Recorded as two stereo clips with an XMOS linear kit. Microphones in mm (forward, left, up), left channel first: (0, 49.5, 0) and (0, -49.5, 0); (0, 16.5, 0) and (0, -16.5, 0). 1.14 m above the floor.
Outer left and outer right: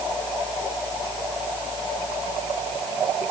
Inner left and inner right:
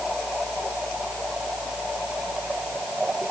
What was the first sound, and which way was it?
Only background noise.